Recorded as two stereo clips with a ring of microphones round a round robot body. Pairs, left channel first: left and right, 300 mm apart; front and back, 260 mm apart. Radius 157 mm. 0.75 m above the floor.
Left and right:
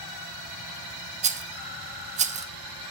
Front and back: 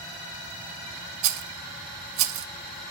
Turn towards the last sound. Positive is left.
turn(degrees=-155)